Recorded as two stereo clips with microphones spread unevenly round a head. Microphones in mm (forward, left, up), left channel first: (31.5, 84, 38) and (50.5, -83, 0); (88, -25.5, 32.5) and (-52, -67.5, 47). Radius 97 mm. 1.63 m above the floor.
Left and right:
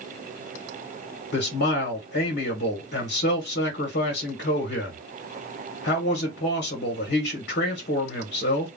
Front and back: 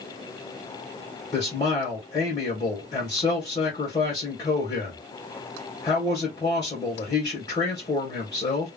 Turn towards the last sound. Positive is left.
turn(degrees=85)